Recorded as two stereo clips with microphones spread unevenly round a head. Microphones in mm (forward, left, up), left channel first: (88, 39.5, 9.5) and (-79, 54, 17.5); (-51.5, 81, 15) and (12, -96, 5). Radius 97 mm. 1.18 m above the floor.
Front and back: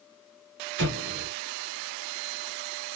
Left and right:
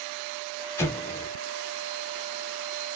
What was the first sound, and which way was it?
An explosion, 175° right.